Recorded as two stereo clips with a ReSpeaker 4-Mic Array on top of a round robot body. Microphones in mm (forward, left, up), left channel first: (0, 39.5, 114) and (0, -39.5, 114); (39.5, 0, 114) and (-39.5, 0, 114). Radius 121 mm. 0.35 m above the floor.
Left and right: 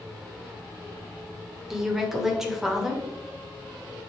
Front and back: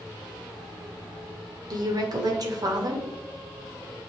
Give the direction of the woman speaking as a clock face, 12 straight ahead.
6 o'clock.